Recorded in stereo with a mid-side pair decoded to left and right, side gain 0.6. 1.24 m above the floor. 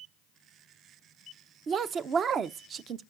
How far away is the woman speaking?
About 0.6 m.